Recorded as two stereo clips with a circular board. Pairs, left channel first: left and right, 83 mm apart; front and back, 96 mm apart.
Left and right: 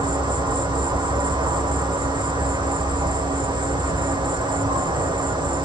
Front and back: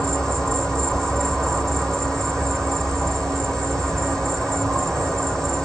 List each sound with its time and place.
0.0 s an insect: 85° right, 7.5 m